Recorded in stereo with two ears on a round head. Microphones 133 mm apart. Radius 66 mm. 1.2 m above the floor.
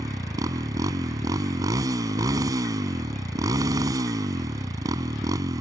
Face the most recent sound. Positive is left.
turn(degrees=-25)  # may be behind; listen again after turning